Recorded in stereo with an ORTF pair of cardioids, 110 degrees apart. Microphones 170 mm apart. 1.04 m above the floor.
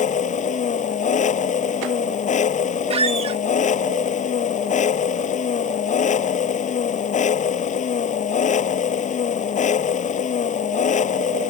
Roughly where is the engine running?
Ahead left.